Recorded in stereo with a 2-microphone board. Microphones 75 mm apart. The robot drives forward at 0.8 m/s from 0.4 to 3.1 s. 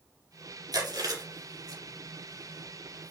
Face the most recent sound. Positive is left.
turn(degrees=-50)  # may be behind; listen again after turning